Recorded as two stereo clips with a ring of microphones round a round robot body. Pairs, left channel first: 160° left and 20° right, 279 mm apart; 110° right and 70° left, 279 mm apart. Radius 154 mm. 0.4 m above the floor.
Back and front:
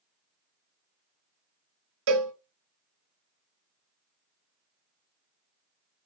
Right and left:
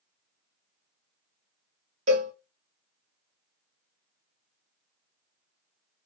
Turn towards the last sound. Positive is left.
turn(degrees=0)